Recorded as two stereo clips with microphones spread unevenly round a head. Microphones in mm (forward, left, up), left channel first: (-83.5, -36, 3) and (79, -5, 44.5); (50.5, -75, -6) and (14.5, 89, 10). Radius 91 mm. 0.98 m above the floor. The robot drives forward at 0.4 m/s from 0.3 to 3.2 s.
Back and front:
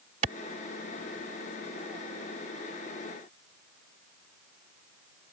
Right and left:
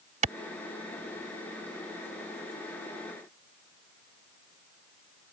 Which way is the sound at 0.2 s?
60° left.